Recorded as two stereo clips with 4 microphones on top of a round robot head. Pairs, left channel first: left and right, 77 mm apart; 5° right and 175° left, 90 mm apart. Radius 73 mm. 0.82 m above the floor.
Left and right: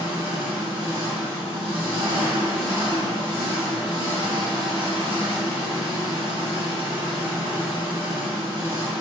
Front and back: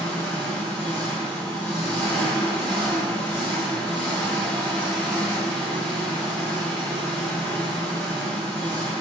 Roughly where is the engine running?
Left.